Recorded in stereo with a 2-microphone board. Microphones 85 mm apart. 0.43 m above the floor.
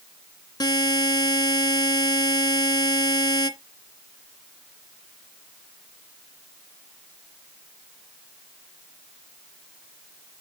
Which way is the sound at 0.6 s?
55° left (ahead or behind).